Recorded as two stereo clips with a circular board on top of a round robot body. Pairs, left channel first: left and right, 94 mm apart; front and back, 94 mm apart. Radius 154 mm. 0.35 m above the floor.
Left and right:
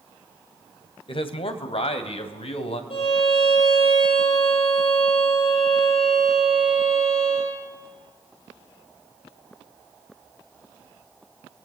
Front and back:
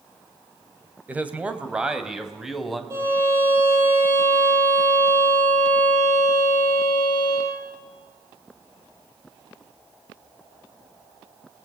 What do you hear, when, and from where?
1.1 s a man speaking: 105° left, 2.5 m; by 2.8 s 90° left, 3 m
2.9 s a violin: 120° left, 8.5 m